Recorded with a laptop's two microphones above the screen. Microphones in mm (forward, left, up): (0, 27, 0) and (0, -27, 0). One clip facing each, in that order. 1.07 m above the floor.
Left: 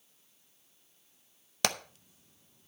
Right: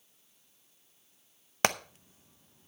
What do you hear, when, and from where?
1.6 s hammering: 35° right (ahead or behind), 0.6 m